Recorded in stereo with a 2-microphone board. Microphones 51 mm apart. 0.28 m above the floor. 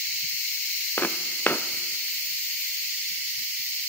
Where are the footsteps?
40° left (ahead or behind), 1.0 m.